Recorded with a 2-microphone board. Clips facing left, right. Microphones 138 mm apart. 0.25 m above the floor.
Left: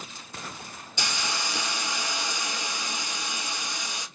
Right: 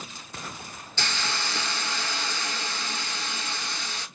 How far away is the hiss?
About 0.7 m.